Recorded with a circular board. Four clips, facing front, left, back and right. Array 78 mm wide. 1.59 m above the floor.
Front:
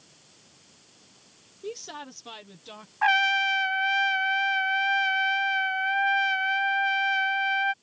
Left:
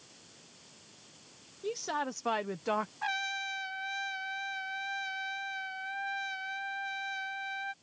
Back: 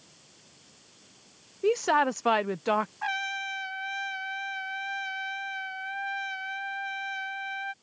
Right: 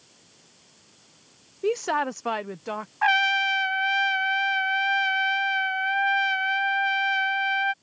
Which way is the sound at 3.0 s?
50° right.